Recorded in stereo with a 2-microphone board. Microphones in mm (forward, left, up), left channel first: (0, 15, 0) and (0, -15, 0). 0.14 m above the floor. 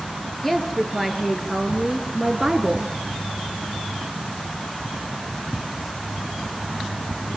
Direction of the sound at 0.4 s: 10° left (ahead or behind).